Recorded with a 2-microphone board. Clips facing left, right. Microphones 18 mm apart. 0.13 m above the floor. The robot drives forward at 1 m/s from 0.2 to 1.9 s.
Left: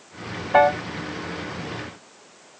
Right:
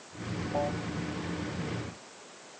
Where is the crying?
No crying in this recording.